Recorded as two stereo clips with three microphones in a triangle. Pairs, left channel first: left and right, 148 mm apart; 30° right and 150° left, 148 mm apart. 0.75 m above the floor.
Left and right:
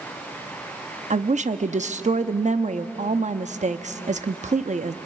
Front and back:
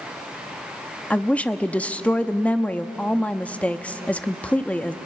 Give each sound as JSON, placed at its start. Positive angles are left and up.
{"t": 1.1, "sound": "a woman speaking", "azimuth_deg": -110, "distance_m": 0.8}